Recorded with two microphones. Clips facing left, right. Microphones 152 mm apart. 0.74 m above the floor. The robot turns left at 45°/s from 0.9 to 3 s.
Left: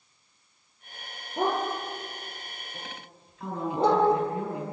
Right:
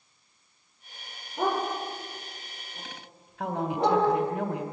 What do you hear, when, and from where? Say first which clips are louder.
1.4 s a dog barking: even; 80° left, 9 m; by 4.0 s 25° left (ahead or behind), 9 m
3.4 s a woman speaking: even; 70° right (ahead or behind), 3 m